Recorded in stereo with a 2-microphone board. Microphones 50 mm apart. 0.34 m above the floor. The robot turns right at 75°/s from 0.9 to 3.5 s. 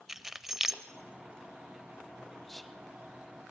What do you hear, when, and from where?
0.1 s keys jangling: 10° right (ahead or behind), 0.7 m
2.5 s whispering: 5° left (ahead or behind), 0.8 m; by 2.8 s 5° right (ahead or behind), 0.8 m